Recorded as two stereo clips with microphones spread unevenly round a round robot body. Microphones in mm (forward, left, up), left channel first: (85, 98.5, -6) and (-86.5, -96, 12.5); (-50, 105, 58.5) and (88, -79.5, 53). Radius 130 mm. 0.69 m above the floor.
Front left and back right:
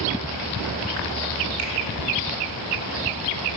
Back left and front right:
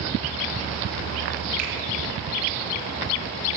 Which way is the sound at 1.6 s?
105° right.